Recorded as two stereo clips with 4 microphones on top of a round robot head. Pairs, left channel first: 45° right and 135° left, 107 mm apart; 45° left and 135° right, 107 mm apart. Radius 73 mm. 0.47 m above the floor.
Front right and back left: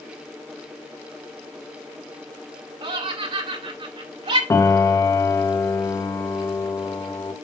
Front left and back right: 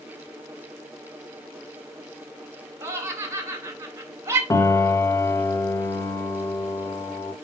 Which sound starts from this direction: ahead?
A piano, at 4.5 s.